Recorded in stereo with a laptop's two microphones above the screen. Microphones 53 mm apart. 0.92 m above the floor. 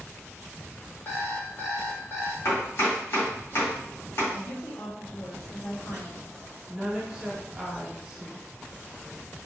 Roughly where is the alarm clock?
Left.